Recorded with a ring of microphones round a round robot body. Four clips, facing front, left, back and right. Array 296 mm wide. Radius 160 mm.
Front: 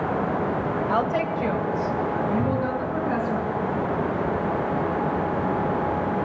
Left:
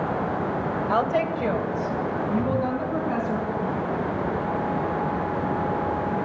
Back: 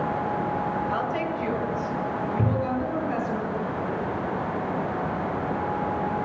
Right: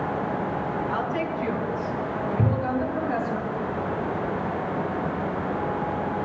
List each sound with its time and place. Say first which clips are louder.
0.9 s a woman speaking: left 4 dB, front 4 dB; 65° left, 2 m; by 3.4 s 70° left, 4.5 m
2.4 s a cupboard door: even, front 1 dB; 120° right, 0.8 m